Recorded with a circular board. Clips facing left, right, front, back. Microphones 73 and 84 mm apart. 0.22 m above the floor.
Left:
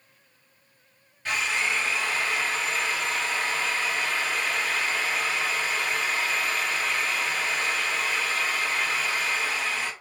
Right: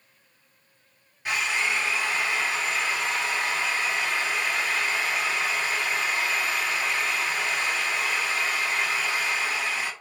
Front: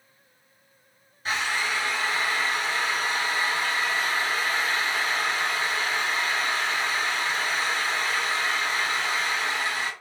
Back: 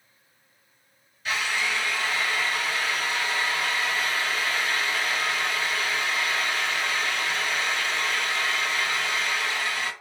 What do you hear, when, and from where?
1.2 s a drill: 25° right, 1.9 m